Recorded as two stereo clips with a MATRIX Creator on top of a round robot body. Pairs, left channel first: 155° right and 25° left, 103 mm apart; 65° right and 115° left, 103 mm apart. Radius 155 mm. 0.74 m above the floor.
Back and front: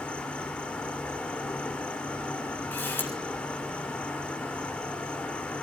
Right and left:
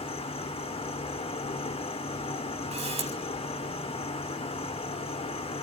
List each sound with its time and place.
0.0 s an insect: 80° right, 2.5 m
2.7 s a camera shutter: 130° left, 7 m